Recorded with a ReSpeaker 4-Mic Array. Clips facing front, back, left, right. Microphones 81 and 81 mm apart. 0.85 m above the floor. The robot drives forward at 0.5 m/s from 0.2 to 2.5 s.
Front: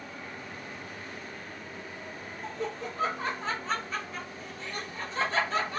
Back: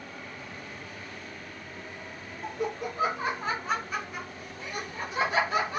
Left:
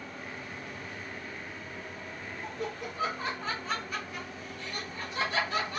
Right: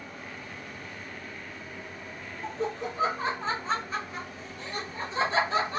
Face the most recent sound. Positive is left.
turn(degrees=-115)